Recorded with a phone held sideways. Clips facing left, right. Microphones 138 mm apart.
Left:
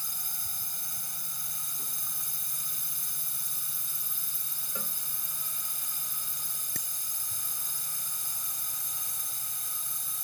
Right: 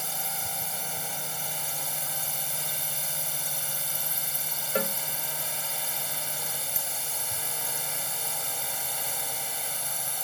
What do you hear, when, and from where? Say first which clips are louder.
0.0 s a drone: right 14 dB; 75° right (ahead or behind)
4.8 s a cowbell: right 15 dB; 85° right
6.8 s a bicycle bell: right 7 dB; 65° left (ahead or behind)